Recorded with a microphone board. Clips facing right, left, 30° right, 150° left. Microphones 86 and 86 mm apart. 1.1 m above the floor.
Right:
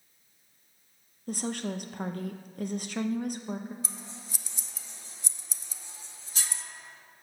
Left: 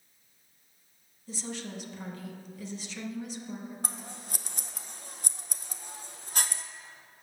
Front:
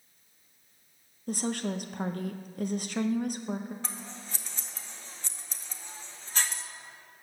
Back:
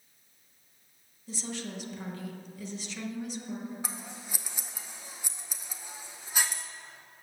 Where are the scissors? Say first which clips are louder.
Left 3 dB, even; 70° left, 0.8 m.